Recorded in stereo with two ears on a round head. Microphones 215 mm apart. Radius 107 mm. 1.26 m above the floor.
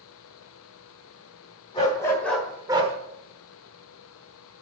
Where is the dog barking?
20° left (ahead or behind), 2 m; by 3.0 s 30° right (ahead or behind), 1.2 m.